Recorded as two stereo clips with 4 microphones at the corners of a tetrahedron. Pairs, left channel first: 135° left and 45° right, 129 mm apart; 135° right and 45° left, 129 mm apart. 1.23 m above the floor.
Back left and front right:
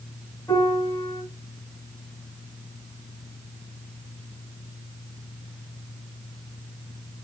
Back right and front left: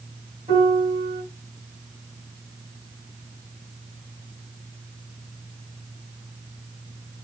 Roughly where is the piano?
Left.